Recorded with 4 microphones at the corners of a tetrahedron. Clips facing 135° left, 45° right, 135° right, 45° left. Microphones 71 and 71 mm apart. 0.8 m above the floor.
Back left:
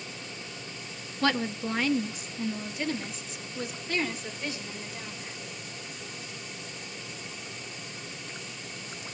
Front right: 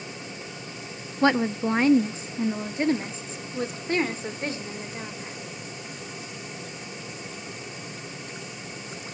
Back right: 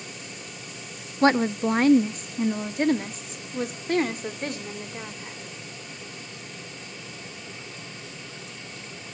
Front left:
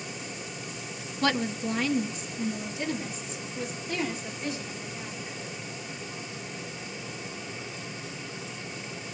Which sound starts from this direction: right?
A woman speaking, at 1.2 s.